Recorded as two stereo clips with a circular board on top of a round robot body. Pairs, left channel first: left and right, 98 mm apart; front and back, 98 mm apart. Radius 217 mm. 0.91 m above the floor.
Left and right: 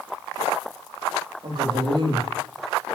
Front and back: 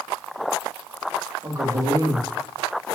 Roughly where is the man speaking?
Behind right.